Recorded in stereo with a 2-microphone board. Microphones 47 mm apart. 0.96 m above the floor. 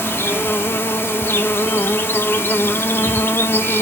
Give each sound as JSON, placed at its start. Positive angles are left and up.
{"t": 0.0, "sound": "an insect", "side_deg": 55, "distance_m": 0.8}